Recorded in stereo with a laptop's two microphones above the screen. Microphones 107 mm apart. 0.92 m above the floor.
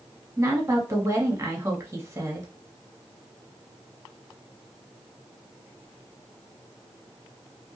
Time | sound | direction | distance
0.4 | a woman speaking | 25° right (ahead or behind) | 1.2 m